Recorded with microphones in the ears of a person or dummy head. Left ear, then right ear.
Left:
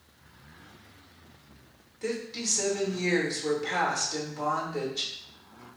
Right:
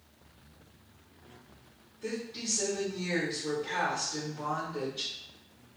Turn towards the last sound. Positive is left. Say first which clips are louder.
# left 4 dB
turn(degrees=60)  # may be behind; listen again after turning